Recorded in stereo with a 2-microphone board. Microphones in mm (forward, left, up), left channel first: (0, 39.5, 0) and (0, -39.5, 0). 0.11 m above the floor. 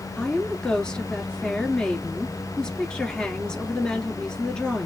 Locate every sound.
0.2 s a woman speaking: 10° left (ahead or behind), 1.4 m